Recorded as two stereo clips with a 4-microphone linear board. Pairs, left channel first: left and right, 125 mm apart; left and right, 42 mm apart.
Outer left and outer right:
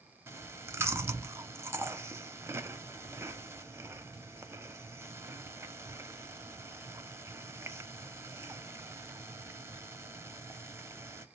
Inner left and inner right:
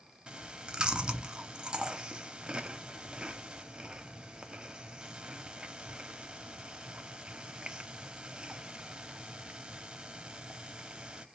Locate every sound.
0.3 s chewing: 20° right (ahead or behind), 0.6 m